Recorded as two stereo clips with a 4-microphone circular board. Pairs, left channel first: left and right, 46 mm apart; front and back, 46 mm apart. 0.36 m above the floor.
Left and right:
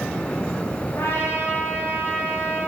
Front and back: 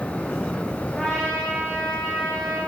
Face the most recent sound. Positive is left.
turn(degrees=75)